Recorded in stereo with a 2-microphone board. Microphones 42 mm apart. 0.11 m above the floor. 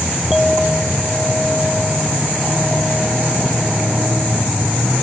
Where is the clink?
5° right (ahead or behind).